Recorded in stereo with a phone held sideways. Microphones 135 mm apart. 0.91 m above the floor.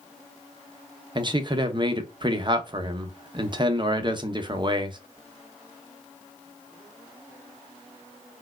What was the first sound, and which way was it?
A man speaking, 35° right (ahead or behind).